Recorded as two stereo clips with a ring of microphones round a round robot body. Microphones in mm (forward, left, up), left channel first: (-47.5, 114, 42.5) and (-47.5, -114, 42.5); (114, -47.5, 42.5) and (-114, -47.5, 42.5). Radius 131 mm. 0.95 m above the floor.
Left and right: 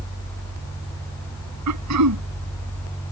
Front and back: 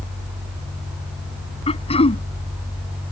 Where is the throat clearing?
65° right.